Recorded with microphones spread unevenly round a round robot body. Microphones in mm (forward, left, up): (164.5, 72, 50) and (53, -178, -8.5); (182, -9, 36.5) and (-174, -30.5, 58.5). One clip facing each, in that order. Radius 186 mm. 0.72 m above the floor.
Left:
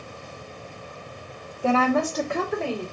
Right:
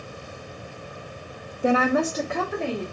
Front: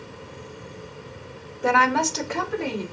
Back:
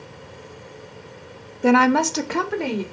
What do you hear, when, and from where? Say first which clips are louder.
1.6 s a woman speaking: right 1 dB, back 7 dB; 145° right, 0.5 m; by 2.8 s 160° left, 1.3 m